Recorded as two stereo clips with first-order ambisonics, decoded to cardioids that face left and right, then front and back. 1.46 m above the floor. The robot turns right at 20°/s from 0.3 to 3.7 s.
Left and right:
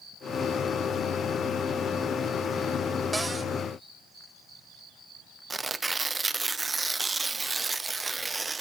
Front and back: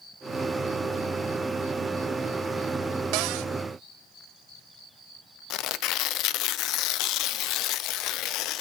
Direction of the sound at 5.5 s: 15° right.